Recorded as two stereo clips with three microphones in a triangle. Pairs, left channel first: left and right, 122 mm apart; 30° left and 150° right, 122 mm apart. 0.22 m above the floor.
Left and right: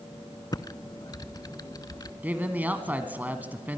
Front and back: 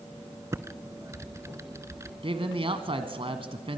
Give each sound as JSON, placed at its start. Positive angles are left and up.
{"t": 0.5, "sound": "typing on a keyboard", "azimuth_deg": 145, "distance_m": 0.6}
{"t": 2.2, "sound": "a man speaking", "azimuth_deg": -160, "distance_m": 1.6}